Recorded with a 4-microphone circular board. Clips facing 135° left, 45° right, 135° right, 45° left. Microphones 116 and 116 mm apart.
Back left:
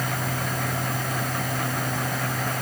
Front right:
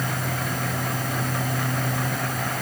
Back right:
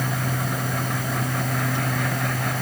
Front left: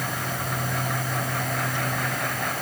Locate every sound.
Only background noise.